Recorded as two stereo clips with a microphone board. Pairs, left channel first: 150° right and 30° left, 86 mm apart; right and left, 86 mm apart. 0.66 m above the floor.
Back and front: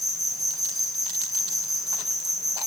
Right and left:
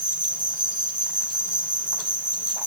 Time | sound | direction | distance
0.0 | an insect | 120° left | 2 m